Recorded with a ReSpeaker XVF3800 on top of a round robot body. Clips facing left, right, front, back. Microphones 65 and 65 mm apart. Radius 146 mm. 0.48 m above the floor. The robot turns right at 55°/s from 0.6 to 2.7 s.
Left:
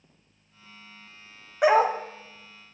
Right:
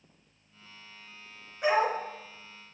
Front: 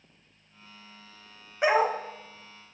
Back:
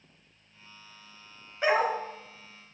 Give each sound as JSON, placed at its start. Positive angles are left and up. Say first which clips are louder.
{"t": 1.6, "sound": "a dog barking", "louder": "left 6 dB, front 2 dB", "azimuth_deg": 75, "distance_m": 1.3}